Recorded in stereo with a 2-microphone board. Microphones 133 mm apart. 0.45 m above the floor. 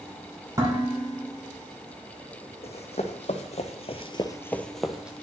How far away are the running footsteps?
About 1.3 m.